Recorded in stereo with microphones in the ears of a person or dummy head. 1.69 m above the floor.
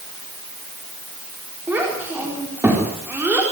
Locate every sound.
1.7 s a child speaking: 10° right (ahead or behind), 4 m